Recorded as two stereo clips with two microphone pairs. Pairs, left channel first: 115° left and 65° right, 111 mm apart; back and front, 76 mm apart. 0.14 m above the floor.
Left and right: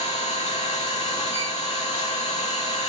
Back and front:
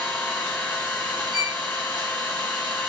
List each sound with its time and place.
0.0 s an engine running: 115° left, 3 m
1.3 s a violin: straight behind, 5.5 m